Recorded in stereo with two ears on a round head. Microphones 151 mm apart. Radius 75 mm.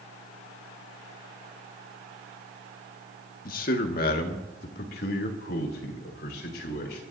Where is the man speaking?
55° left (ahead or behind), 1.8 m; by 7.0 s 65° left (ahead or behind), 5 m.